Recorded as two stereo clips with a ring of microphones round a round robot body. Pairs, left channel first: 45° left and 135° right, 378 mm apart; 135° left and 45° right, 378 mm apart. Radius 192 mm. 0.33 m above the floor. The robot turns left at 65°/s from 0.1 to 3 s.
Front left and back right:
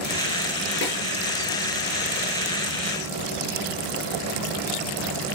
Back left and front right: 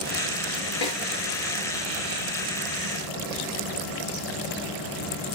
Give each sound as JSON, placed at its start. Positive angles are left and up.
{"t": 0.8, "sound": "a snare drum", "azimuth_deg": 105, "distance_m": 7.5}